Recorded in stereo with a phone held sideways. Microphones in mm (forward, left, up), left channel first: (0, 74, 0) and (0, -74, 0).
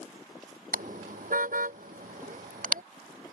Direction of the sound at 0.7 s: 65° right (ahead or behind).